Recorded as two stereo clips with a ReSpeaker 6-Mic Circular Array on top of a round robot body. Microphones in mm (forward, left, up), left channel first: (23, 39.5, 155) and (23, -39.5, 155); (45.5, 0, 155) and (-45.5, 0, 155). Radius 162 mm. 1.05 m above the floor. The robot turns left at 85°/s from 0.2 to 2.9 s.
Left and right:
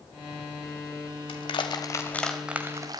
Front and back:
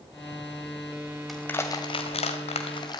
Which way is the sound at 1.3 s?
90° left.